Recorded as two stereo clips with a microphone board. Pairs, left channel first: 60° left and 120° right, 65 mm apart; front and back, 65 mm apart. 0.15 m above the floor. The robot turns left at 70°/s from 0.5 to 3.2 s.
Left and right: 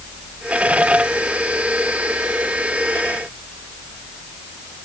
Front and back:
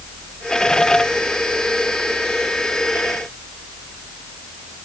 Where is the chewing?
No chewing in this recording.